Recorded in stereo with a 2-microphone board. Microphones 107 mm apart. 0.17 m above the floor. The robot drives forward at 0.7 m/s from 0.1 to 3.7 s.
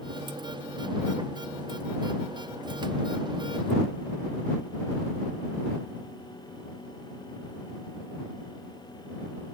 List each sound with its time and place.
Only background noise.